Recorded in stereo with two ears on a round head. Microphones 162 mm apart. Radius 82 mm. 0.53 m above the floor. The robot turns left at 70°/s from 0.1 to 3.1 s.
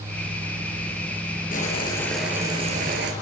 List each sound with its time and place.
1.5 s boiling: 50° left, 4.5 m; by 3.1 s 65° right, 4.5 m